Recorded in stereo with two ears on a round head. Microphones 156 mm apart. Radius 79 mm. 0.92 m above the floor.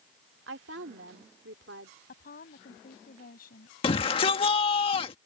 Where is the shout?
30° left (ahead or behind).